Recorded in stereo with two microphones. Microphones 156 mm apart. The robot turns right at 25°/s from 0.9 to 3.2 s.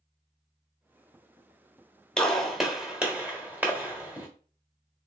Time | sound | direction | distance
2.2 | a gunshot | 5° left (ahead or behind) | 1.1 m